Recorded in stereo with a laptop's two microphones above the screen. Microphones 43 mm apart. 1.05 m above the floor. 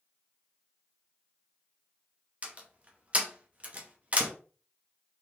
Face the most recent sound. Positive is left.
turn(degrees=-30)  # may be behind; listen again after turning